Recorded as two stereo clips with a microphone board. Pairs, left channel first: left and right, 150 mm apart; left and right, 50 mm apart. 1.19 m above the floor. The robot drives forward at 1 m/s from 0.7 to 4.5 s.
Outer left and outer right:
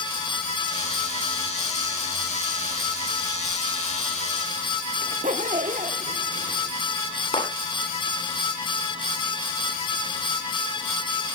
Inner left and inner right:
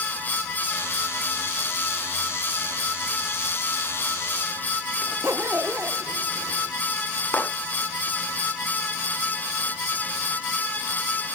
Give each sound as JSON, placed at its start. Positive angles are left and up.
{"t": 5.0, "sound": "a zipper", "side_deg": -60, "distance_m": 0.9}
{"t": 7.3, "sound": "a clap", "side_deg": 40, "distance_m": 9.0}